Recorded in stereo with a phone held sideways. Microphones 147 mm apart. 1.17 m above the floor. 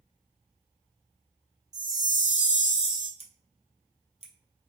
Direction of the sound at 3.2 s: 45° right (ahead or behind).